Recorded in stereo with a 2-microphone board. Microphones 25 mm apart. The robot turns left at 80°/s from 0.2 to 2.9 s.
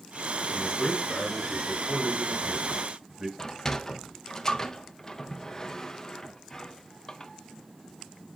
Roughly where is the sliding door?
Left.